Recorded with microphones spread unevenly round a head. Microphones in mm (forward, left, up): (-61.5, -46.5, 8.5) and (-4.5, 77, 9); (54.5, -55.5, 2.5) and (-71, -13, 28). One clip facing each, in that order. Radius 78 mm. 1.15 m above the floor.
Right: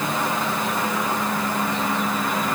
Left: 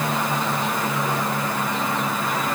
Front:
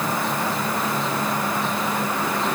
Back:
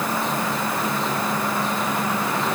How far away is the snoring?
I don't hear snoring.